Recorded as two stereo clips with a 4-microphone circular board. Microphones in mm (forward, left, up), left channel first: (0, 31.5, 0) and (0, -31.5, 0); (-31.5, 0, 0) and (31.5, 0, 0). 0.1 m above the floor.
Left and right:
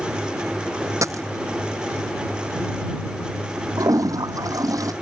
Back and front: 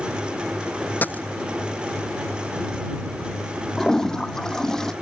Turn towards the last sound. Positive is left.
turn(degrees=-100)